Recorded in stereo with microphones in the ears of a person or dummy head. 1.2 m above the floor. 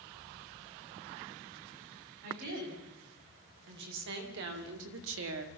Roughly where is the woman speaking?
Right.